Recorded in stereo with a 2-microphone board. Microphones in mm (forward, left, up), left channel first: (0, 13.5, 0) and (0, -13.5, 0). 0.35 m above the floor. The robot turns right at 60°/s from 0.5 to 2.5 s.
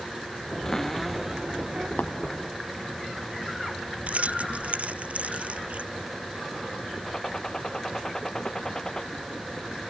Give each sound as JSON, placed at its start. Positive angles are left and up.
{"t": 0.7, "sound": "a cupboard door", "azimuth_deg": 155}
{"t": 2.0, "sound": "tapping", "side_deg": 85}
{"t": 4.1, "sound": "keys jangling", "side_deg": -60}
{"t": 7.1, "sound": "a gunshot", "side_deg": 25}